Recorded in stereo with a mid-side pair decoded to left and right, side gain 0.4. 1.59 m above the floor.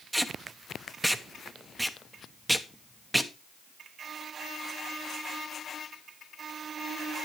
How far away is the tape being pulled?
About 0.8 m.